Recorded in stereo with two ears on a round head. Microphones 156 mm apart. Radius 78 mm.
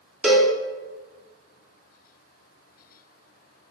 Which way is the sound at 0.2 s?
5° right (ahead or behind).